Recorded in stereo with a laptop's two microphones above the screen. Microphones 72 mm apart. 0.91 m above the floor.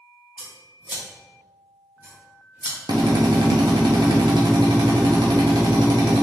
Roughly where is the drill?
Right.